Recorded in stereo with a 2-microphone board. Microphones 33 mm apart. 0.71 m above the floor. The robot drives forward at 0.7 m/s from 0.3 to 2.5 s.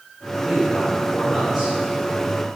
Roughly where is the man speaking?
Centre.